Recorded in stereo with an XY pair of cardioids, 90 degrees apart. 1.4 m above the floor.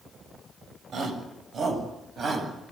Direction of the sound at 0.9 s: 60° right.